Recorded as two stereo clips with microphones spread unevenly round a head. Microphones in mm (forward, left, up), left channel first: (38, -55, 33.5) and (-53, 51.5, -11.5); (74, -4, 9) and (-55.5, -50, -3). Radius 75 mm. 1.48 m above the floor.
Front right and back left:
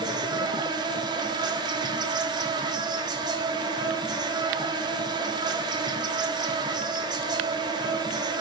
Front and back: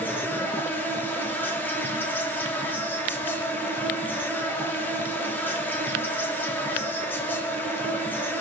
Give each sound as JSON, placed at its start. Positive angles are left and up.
{"t": 0.0, "sound": "an insect", "azimuth_deg": 100, "distance_m": 1.3}